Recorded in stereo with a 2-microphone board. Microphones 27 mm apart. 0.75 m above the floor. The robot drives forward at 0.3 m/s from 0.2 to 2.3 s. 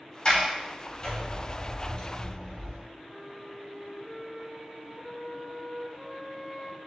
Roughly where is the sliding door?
Left.